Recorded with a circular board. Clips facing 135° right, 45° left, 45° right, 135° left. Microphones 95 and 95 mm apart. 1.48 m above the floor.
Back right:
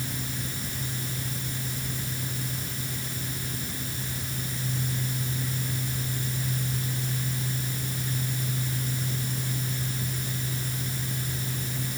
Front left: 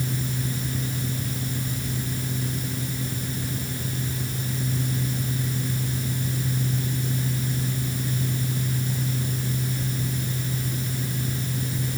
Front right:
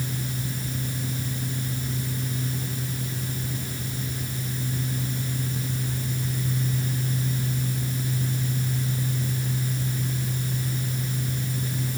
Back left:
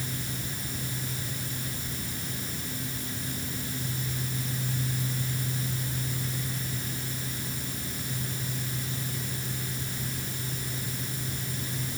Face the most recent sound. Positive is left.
No sound to turn to.